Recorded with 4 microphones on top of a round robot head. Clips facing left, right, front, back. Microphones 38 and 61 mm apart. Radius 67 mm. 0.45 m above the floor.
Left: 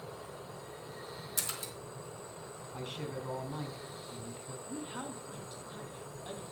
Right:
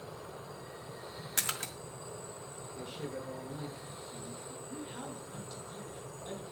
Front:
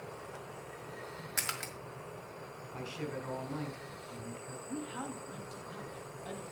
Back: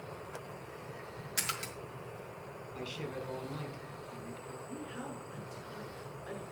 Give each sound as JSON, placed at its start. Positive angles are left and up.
{"t": 1.4, "sound": "a splash", "azimuth_deg": -60, "distance_m": 1.8}
{"t": 2.7, "sound": "a man speaking", "azimuth_deg": 60, "distance_m": 4.0}
{"t": 4.7, "sound": "a man speaking", "azimuth_deg": 20, "distance_m": 4.5}